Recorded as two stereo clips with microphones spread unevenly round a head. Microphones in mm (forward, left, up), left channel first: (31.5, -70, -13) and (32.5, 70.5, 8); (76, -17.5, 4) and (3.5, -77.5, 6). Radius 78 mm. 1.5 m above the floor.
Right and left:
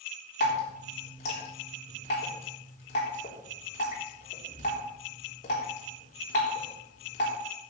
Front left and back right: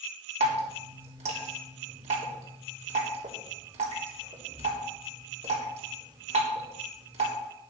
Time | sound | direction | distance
0.4 | dripping | 140° right | 3.5 m